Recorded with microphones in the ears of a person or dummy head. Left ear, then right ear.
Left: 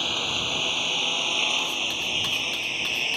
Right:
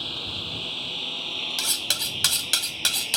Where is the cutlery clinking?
65° right (ahead or behind).